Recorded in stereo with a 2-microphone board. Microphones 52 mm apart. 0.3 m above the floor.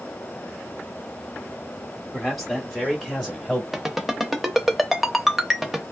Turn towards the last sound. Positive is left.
turn(degrees=-5)  # may be behind; listen again after turning